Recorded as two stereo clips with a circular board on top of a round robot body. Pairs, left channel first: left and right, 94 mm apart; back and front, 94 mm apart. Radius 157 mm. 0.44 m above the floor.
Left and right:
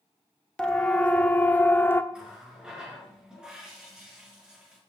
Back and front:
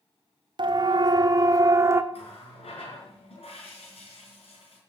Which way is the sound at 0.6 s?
10° left.